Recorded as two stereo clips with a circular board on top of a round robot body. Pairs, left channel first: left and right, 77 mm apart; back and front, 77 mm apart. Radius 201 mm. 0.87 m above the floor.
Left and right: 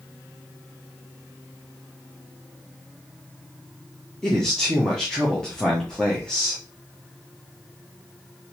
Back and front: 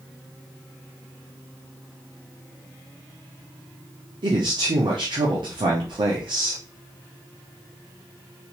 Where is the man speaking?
10° left, 1.0 m.